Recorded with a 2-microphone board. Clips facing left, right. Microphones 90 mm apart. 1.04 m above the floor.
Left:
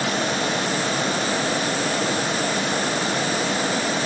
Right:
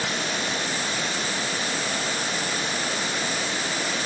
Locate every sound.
Only background noise.